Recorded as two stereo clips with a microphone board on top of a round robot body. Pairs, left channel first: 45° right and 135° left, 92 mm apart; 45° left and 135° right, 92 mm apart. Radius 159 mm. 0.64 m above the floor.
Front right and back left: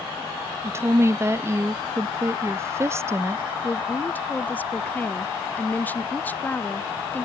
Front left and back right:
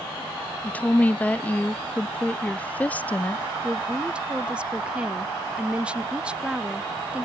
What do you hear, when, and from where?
0.6 s a woman speaking: 105° left
3.6 s a woman speaking: 75° right